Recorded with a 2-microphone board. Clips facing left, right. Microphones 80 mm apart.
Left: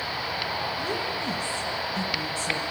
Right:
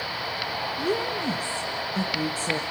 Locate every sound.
0.8 s a woman speaking: 35° right (ahead or behind), 1.4 m